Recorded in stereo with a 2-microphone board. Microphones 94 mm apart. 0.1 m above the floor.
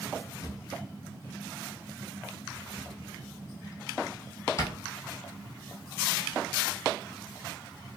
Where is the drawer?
40° left (ahead or behind), 1.4 m.